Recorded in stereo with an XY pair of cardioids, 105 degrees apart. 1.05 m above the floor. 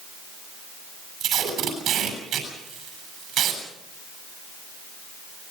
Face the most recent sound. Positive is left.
turn(degrees=-65)